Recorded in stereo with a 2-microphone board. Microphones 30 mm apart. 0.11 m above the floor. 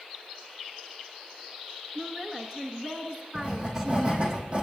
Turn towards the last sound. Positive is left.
turn(degrees=-35)  # may be behind; listen again after turning